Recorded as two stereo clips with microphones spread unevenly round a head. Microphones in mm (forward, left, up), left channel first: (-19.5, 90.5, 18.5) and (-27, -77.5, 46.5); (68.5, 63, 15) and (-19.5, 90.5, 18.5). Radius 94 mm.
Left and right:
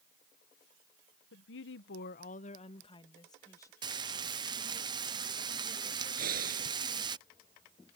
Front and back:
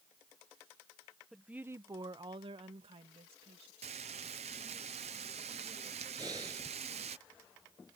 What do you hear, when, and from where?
1.3 s a woman speaking: 75° left; by 3.7 s 160° left
3.8 s frying: 155° right
6.2 s breathing: 125° right